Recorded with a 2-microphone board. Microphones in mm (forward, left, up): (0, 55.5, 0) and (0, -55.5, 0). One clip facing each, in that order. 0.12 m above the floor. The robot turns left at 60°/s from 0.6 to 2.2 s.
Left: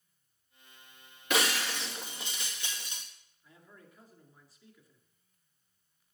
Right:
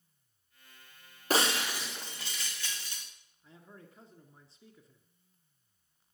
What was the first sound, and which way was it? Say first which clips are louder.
Breaking glass: right 1 dB; 145° right.